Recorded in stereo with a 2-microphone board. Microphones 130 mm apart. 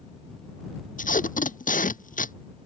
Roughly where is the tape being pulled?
Left.